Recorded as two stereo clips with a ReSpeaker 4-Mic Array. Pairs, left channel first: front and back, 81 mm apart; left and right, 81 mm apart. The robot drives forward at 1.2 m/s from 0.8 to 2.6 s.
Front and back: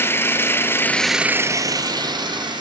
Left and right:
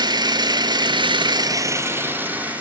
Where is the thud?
I don't hear a thud.